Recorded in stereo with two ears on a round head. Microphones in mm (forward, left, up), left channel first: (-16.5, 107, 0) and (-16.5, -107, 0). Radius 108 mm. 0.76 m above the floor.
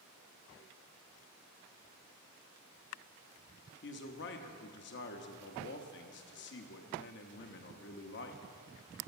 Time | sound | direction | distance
3.8 | a man speaking | 50° left (ahead or behind) | 0.8 m